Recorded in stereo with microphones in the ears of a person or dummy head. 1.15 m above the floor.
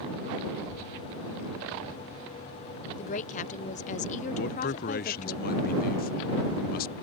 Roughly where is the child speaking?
Left.